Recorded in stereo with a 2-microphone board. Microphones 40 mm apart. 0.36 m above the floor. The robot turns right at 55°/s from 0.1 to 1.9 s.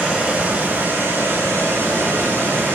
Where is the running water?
155° right, 4.5 m; by 2.8 s 55° right, 4.5 m.